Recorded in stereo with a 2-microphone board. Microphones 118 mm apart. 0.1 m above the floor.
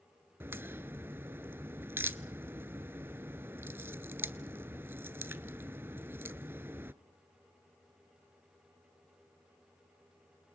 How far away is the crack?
About 0.7 m.